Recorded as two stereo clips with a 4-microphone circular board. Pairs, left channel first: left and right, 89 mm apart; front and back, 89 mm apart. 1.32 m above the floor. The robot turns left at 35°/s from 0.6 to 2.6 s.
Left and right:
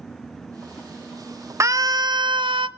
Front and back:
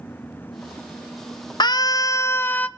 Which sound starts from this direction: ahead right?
A scream, at 1.6 s.